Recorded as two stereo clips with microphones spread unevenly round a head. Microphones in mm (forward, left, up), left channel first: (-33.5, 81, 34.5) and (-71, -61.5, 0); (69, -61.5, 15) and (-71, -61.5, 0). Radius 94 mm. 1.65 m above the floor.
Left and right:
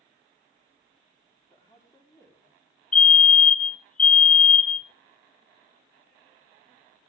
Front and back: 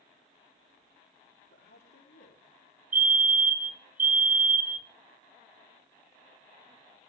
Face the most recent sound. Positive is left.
turn(degrees=110)